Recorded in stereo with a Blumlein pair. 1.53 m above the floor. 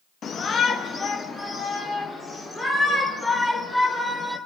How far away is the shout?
About 1.6 m.